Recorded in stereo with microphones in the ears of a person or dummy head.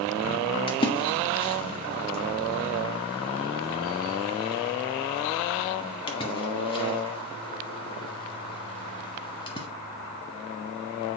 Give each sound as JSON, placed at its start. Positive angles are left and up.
{"t": 0.7, "sound": "a splash", "side_deg": 25, "distance_m": 0.7}